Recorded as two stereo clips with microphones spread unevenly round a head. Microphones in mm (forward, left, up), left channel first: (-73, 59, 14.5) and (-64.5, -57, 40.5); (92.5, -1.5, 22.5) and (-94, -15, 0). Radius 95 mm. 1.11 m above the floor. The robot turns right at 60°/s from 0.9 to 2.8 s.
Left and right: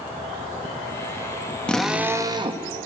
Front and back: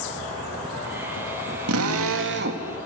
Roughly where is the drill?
Behind.